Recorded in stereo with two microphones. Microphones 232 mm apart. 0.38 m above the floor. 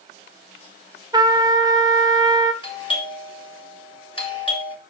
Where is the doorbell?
20° left (ahead or behind), 2 m.